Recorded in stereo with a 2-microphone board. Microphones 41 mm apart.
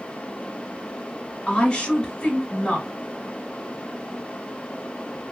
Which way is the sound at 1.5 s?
20° left (ahead or behind).